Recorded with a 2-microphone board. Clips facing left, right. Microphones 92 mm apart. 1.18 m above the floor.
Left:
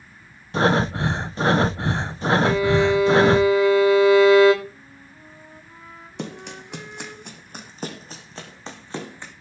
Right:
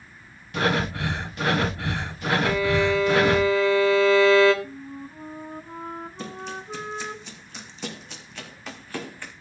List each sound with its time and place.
0.5 s breathing: 30° left (ahead or behind), 0.8 m
2.4 s a violin: 15° left (ahead or behind), 3.5 m
4.6 s a flute: 50° right (ahead or behind), 1.5 m
6.2 s running footsteps: 70° left (ahead or behind), 3.5 m; by 9.3 s 20° left (ahead or behind), 5 m